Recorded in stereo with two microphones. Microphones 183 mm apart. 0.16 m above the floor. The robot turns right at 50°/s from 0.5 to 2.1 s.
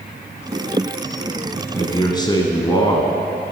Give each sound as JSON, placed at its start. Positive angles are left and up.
{"t": 1.7, "sound": "a man speaking", "side_deg": 25, "distance_m": 1.3}